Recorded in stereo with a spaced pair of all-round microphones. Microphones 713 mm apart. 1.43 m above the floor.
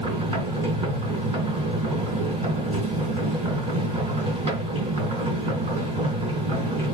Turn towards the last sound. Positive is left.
turn(degrees=-35)  # may be behind; listen again after turning